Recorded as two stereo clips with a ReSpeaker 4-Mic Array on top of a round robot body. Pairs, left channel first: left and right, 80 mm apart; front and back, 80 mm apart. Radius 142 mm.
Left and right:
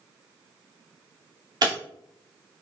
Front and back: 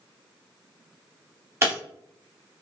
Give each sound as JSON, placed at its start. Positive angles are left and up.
{"t": 1.6, "sound": "breaking glass", "azimuth_deg": -120, "distance_m": 2.0}